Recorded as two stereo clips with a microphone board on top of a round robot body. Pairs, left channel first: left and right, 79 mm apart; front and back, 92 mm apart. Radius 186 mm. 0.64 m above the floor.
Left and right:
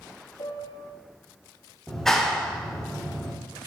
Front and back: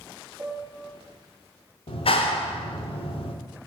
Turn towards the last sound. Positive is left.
turn(degrees=5)